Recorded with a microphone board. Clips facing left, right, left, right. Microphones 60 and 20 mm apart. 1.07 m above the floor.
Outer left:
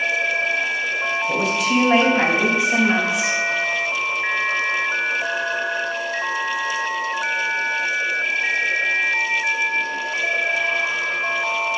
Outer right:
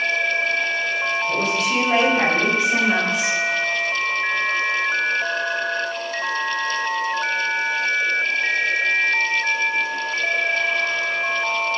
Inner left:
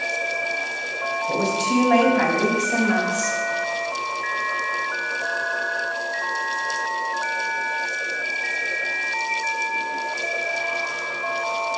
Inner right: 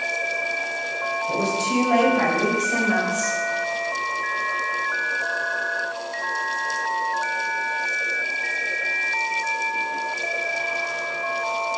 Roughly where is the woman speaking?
Centre.